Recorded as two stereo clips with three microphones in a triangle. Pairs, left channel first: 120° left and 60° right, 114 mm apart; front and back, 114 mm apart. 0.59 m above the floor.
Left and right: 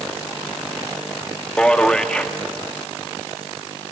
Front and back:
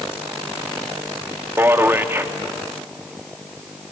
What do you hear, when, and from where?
1.6 s a man speaking: 175° right, 0.8 m